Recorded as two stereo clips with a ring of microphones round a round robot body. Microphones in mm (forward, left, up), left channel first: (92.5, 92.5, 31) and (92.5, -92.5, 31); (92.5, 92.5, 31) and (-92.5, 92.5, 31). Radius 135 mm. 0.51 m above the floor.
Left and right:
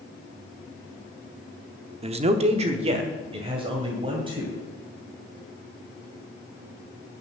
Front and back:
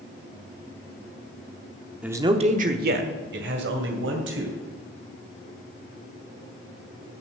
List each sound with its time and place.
2.0 s a man speaking: 100° right, 0.7 m; by 4.5 s 160° right, 3 m